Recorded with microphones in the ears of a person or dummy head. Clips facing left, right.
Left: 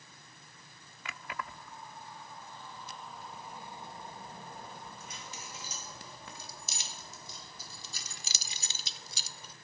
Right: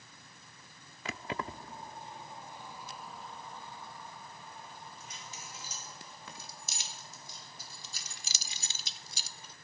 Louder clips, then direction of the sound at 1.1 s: Right 5 dB; 30° right (ahead or behind).